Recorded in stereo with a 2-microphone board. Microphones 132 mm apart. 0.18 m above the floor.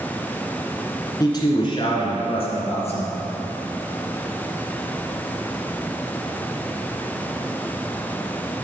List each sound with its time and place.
1.2 s a man speaking: 30° left (ahead or behind), 2.5 m; by 3.3 s 50° left (ahead or behind), 4 m